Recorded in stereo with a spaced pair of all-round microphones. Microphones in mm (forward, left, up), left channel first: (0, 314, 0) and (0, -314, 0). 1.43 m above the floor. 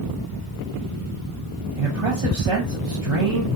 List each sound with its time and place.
1.8 s a man speaking: 55° right (ahead or behind), 0.9 m